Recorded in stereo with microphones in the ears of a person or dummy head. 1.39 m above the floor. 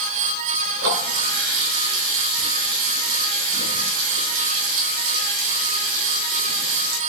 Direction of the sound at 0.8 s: 80° right.